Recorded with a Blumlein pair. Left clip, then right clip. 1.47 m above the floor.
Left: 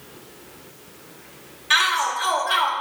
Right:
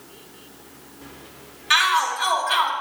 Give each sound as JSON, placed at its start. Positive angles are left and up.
{"t": 1.7, "sound": "a shout", "azimuth_deg": -5, "distance_m": 1.6}